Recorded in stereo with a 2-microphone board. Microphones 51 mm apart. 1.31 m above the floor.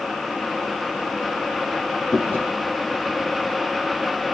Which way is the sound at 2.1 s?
40° left (ahead or behind).